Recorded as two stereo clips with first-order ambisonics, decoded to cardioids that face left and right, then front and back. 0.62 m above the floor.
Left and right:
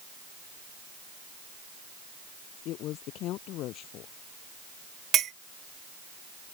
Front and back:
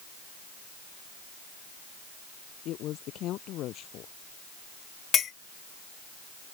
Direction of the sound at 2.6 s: 45° left.